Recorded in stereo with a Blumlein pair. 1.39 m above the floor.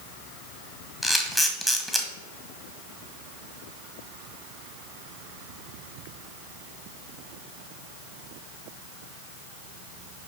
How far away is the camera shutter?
About 1.5 m.